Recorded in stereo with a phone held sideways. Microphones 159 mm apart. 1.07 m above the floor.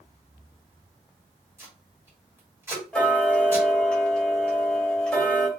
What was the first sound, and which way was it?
Tape being pulled, 15° right (ahead or behind).